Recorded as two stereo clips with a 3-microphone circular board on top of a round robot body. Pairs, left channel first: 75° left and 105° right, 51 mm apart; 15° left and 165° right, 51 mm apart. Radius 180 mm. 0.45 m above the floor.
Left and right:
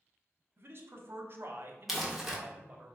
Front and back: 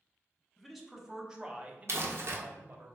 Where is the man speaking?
75° right, 1.3 m; by 2.9 s 160° right, 1.2 m.